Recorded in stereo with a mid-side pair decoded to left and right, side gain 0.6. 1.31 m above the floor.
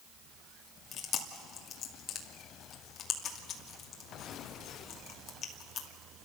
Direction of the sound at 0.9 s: 50° left.